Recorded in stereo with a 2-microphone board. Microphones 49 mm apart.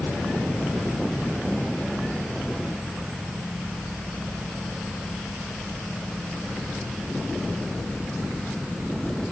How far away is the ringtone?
I don't hear a ringtone.